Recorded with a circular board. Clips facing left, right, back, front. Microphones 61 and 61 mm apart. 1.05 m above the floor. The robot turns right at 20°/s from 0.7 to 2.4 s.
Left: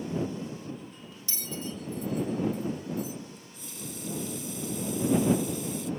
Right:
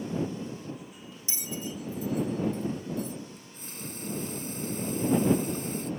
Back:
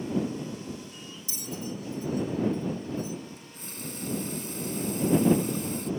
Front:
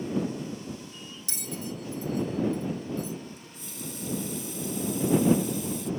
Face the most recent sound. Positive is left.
turn(degrees=-140)